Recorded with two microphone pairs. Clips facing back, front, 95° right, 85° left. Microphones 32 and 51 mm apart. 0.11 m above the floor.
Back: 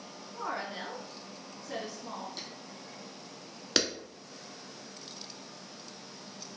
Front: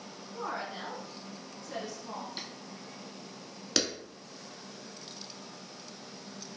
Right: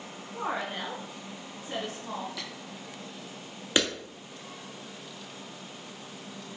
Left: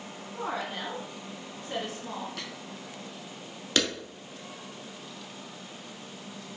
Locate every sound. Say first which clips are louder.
0.3 s a woman speaking: back 1 dB, right 1 dB; 105° right, 1.4 m; by 2.3 s 170° left, 1.7 m
2.4 s tapping: front 1 dB, even; 55° left, 1.2 m
3.8 s a clap: back 1 dB, right 1 dB; 130° right, 0.9 m